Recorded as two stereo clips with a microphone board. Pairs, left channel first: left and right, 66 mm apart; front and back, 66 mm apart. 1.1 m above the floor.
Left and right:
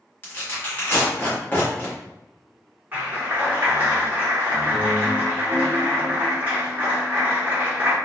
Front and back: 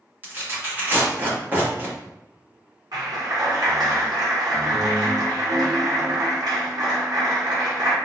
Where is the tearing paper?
135° left, 1.0 m.